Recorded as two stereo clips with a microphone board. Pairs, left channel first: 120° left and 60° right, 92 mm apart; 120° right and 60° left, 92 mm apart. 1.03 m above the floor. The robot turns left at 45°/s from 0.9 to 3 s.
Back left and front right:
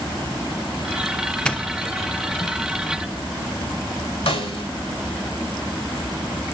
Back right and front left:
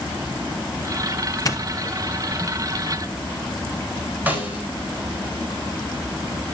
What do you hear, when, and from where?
1.4 s a doorbell: 160° right, 0.9 m; by 2.5 s 150° left, 0.9 m
4.3 s a snare drum: 130° left, 4 m